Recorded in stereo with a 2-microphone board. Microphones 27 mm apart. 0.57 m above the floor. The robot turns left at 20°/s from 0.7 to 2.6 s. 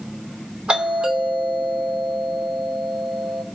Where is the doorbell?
85° right, 2.5 m; by 3.4 s 125° right, 2.5 m.